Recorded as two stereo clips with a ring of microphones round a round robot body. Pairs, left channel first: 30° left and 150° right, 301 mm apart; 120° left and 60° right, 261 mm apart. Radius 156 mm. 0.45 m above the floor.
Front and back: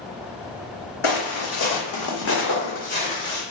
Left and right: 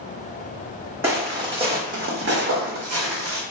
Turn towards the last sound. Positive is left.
turn(degrees=-50)